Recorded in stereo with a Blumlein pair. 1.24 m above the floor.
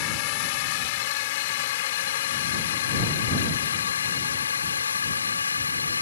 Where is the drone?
45° left; by 6.0 s 75° left.